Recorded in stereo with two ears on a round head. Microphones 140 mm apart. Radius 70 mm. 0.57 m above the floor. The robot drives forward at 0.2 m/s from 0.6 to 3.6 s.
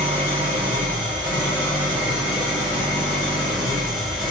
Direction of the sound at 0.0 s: 10° right (ahead or behind).